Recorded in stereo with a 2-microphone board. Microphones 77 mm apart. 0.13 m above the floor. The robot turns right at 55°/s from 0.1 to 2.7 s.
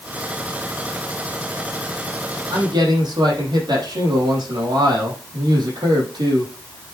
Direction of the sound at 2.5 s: 75° right (ahead or behind).